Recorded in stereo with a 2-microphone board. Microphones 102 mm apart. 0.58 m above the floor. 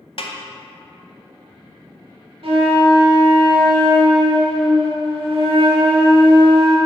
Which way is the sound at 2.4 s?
60° right (ahead or behind).